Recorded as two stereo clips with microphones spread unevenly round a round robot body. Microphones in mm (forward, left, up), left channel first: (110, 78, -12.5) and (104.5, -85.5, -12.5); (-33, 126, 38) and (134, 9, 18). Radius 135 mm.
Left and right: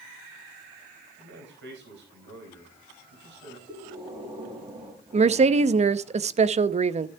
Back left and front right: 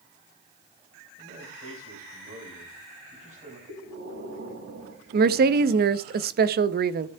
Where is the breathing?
35° right, 6 m.